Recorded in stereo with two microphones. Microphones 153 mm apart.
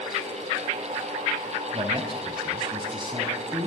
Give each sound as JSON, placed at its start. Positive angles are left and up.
{"t": 1.7, "sound": "a man speaking", "side_deg": -40, "distance_m": 3.5}